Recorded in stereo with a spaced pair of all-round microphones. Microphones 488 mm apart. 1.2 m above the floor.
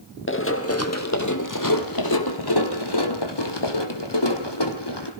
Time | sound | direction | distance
0.3 | running footsteps | 25° left (ahead or behind) | 2 m